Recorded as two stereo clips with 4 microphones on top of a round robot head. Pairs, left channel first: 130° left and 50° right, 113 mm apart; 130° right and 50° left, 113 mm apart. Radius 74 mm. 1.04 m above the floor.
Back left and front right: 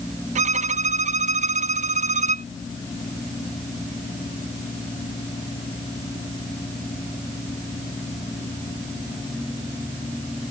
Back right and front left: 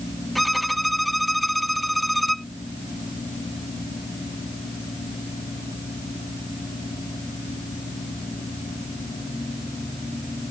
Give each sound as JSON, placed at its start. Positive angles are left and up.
{"t": 0.3, "sound": "a violin", "azimuth_deg": -40}